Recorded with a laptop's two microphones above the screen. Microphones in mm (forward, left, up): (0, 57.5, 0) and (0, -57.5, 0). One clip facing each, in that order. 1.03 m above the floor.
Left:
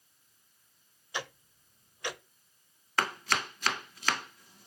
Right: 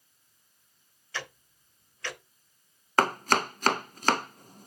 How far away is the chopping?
About 0.5 m.